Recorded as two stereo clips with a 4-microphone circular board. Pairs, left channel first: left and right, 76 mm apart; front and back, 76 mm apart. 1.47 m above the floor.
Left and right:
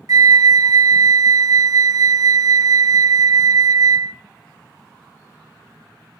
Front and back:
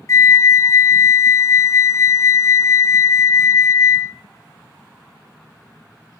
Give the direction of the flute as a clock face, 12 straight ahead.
2 o'clock.